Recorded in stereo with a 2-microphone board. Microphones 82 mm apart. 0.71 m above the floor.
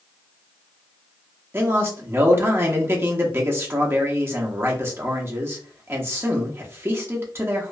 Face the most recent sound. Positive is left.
turn(degrees=-30)  # may be behind; listen again after turning